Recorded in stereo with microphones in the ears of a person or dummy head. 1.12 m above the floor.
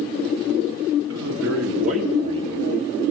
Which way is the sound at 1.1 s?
70° right (ahead or behind).